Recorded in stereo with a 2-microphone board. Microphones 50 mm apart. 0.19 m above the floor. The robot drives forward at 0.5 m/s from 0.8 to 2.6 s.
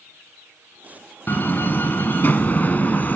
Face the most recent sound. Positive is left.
turn(degrees=35)  # may be behind; listen again after turning